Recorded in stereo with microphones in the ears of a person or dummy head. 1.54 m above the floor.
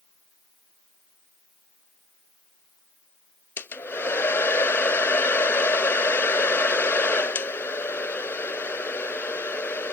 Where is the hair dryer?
5° left (ahead or behind).